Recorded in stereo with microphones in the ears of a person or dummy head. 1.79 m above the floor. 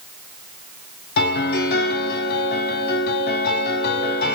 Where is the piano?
60° left (ahead or behind), 0.9 m.